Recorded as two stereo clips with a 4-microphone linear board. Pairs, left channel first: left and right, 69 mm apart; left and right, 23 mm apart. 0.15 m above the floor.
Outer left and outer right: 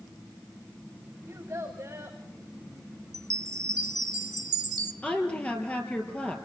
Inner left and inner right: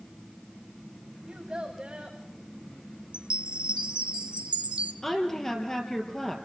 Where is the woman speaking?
20° left (ahead or behind), 4 m.